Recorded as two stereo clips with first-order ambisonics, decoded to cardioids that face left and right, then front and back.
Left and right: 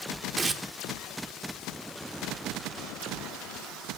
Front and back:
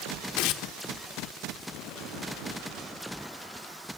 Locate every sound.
0.4 s tearing paper: 15° right, 0.7 m